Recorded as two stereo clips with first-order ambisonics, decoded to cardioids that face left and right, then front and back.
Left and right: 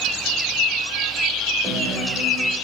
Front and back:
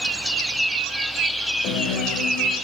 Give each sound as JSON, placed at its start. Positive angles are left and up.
{"t": 1.6, "sound": "a guitar", "azimuth_deg": -30, "distance_m": 1.9}